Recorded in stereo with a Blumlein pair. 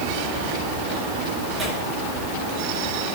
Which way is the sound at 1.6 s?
15° right.